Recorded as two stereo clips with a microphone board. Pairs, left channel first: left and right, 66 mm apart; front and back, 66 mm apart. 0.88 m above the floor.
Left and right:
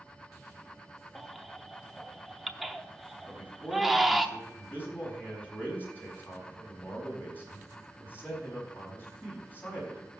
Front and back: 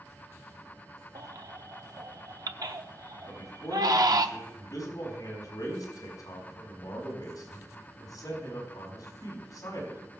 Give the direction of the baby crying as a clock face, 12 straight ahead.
6 o'clock.